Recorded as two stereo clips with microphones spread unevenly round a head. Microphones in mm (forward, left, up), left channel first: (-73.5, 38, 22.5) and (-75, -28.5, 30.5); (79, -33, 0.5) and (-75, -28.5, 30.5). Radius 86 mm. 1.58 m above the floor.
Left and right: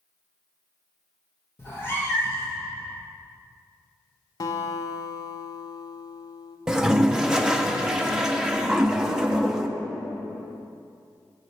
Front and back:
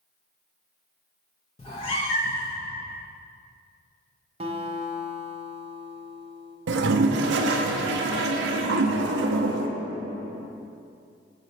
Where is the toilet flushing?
175° right, 0.5 m.